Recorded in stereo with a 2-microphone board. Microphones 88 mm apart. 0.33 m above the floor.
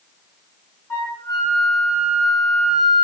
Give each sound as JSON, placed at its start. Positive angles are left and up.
{"t": 0.9, "sound": "a flute", "side_deg": 25, "distance_m": 1.5}